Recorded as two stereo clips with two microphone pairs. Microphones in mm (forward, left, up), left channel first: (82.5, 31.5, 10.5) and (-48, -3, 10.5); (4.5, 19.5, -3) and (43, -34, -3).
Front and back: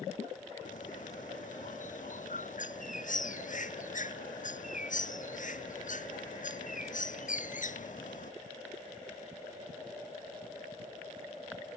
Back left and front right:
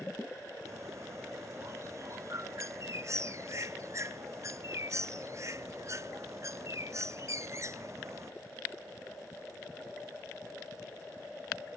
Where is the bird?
10° right.